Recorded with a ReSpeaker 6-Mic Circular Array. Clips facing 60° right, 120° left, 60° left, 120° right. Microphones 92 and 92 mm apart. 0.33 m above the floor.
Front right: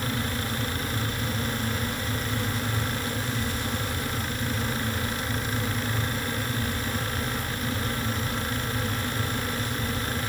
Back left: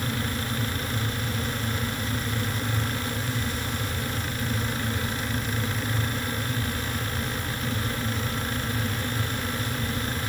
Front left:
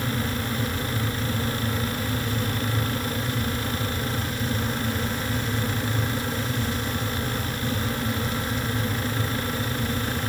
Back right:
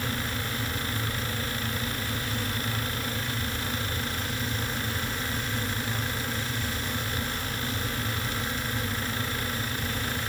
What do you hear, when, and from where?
Only background noise.